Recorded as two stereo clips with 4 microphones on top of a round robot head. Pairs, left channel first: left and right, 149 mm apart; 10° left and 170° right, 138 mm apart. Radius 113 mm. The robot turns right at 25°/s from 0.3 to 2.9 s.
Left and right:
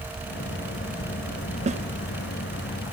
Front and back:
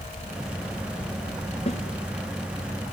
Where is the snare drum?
50° right, 1.6 m.